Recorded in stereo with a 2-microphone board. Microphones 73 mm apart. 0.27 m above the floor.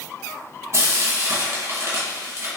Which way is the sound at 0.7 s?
40° right (ahead or behind).